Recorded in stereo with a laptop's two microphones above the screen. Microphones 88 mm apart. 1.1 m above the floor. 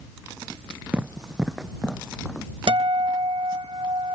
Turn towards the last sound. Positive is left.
turn(degrees=-75)  # may be behind; listen again after turning